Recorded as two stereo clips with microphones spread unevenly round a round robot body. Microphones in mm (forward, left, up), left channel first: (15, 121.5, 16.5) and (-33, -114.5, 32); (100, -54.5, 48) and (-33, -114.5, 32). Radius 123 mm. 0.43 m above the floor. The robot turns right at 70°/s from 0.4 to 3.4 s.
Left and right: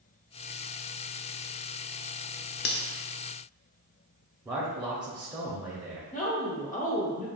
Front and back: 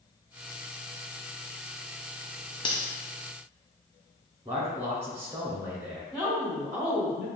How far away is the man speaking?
About 1.1 m.